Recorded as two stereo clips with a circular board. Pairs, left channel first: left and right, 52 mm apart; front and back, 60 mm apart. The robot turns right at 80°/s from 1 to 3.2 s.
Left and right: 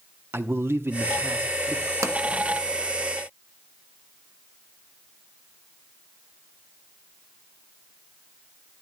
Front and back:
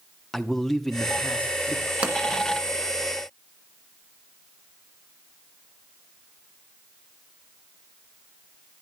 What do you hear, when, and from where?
0.3 s a man speaking: 85° right, 1.0 m; by 1.9 s 15° right, 1.0 m
2.0 s a pop: 110° right, 1.7 m; by 2.2 s 100° right, 1.7 m